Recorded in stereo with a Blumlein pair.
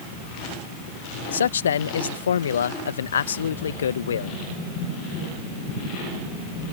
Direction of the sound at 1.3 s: 65° left.